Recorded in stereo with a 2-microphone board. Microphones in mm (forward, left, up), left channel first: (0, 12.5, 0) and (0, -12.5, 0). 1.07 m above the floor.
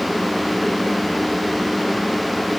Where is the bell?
I don't hear a bell.